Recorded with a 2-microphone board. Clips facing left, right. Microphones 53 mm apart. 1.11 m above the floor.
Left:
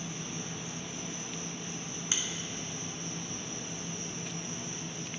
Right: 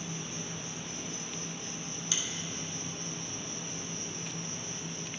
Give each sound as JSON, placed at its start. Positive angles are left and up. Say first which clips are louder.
{"t": 0.0, "sound": "an insect", "louder": "even", "side_deg": 20, "distance_m": 2.5}
{"t": 2.1, "sound": "a finger snap", "louder": "left 1 dB", "side_deg": 30, "distance_m": 1.0}